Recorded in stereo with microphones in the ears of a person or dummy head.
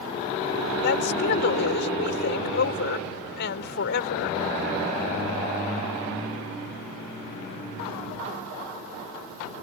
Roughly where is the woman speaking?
Left.